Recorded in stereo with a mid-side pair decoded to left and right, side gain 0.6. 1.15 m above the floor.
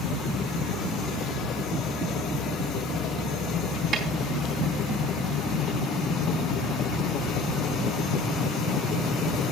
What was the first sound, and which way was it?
A snare drum, 30° right.